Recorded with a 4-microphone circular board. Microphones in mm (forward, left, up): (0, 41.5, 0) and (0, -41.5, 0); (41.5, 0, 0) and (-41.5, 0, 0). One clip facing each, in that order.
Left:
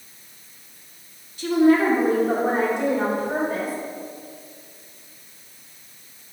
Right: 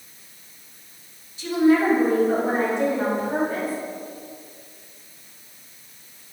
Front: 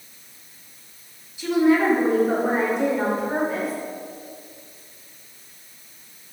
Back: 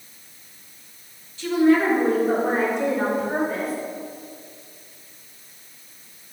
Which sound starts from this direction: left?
A woman speaking, at 1.4 s.